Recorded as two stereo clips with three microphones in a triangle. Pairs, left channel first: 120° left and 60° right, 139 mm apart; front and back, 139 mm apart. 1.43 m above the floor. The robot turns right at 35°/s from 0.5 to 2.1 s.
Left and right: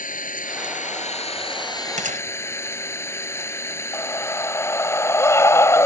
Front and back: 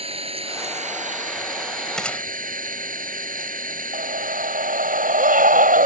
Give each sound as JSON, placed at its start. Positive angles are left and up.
{"t": 0.0, "sound": "an engine running", "azimuth_deg": 135}
{"t": 2.0, "sound": "a gunshot", "azimuth_deg": -85}
{"t": 3.9, "sound": "a scream", "azimuth_deg": -170}